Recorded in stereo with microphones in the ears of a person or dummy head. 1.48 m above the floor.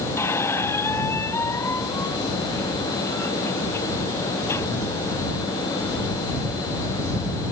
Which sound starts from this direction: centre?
A squeak, at 0.2 s.